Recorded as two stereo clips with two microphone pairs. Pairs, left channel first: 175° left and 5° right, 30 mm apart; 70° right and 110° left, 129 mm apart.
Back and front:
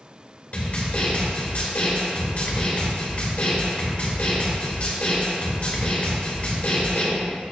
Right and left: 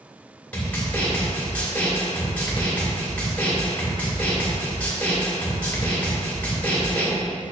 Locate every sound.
0.5 s a snare drum: 150° right, 2 m